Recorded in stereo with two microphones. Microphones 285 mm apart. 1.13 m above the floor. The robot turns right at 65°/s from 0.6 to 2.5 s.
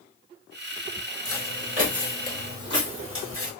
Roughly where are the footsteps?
Right.